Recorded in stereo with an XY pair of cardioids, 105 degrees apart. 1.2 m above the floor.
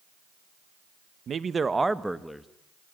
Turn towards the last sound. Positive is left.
turn(degrees=5)